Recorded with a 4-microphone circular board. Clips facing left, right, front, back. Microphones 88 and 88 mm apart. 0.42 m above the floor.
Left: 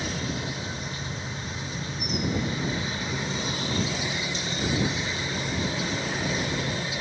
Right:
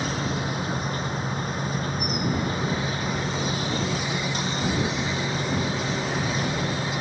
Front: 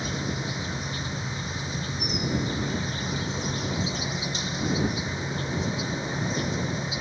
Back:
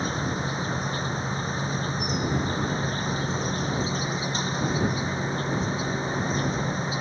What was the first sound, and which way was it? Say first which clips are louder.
An insect: right 4 dB, back 3 dB; 125° right.